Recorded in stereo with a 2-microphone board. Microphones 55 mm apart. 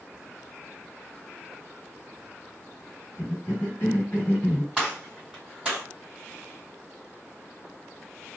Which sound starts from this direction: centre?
A gunshot, at 4.8 s.